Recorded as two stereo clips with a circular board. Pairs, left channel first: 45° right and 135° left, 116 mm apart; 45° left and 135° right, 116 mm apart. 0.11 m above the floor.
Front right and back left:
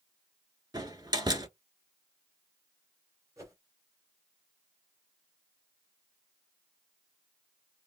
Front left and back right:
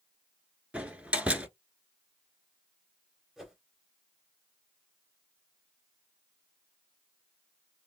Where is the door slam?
150° left, 1.1 m.